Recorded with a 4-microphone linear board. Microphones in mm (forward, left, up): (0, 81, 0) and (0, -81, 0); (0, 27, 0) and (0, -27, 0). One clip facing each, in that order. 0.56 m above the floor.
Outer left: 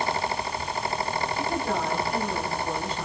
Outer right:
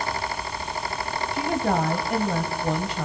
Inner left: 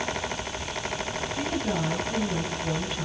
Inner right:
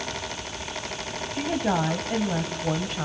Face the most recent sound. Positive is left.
turn(degrees=-75)  # may be behind; listen again after turning